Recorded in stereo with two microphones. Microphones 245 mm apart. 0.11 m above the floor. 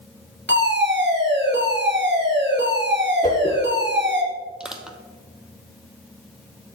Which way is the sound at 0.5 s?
50° right (ahead or behind).